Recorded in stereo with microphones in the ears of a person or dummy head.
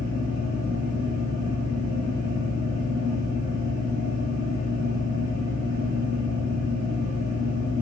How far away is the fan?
About 1.0 m.